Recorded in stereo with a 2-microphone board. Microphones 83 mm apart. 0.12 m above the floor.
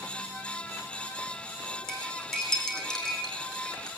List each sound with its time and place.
1.9 s cutlery clinking: 10° left (ahead or behind), 3.5 m